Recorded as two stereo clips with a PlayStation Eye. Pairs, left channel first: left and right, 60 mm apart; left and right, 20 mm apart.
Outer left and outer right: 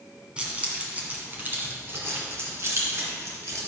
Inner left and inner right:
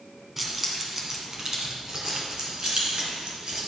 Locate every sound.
0.4 s keys jangling: 20° right (ahead or behind), 2.0 m; by 3.6 s 55° right (ahead or behind), 3 m